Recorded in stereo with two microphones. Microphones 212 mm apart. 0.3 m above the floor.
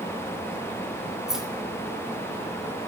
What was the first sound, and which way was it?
Keys jangling, centre (ahead or behind).